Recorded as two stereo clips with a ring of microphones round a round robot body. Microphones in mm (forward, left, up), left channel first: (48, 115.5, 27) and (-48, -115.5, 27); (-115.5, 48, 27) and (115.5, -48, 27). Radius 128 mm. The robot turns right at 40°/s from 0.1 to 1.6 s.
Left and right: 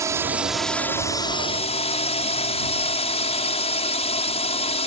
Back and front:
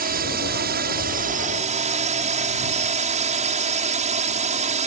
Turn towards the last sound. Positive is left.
turn(degrees=20)